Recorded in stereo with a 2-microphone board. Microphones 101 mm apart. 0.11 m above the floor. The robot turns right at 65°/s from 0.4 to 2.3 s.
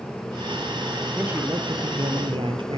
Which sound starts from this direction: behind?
A man speaking, at 1.2 s.